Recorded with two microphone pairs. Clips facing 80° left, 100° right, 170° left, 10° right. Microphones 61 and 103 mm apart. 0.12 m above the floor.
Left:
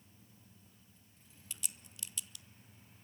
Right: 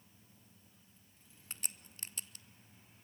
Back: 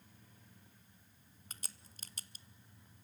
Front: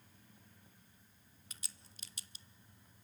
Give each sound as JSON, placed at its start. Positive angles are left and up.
{"t": 1.5, "sound": "a crack", "azimuth_deg": -145, "distance_m": 0.6}